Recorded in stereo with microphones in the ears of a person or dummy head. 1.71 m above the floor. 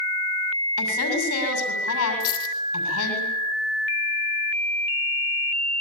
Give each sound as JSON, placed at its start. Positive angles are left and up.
{"t": 0.8, "sound": "a woman speaking", "side_deg": 85, "distance_m": 7.0}
{"t": 2.2, "sound": "a dropped coin", "side_deg": 50, "distance_m": 4.0}